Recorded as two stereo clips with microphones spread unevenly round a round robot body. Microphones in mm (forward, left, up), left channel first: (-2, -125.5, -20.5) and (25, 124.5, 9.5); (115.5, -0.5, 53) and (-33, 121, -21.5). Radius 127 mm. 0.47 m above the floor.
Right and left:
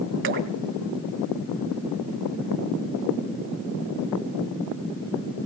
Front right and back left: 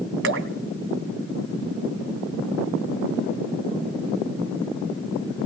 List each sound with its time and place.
0.2 s dripping: 130° left, 1.6 m